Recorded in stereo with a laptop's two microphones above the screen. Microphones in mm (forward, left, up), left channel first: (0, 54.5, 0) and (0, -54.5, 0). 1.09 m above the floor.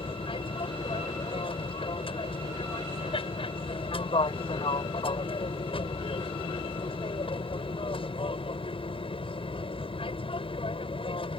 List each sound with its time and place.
0.0 s an aircraft: 55° left (ahead or behind)